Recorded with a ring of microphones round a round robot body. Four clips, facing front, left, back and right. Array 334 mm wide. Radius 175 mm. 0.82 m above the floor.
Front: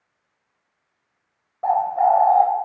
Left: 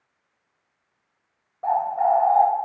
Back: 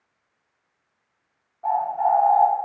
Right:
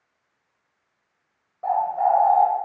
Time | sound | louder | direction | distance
1.6 | a bird | even, front 4 dB | 5° left | 0.7 m